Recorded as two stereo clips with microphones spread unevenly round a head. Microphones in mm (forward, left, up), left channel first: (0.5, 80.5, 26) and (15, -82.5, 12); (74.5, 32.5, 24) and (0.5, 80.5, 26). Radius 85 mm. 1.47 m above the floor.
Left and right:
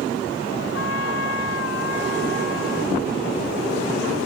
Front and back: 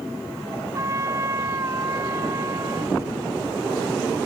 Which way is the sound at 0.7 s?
95° left.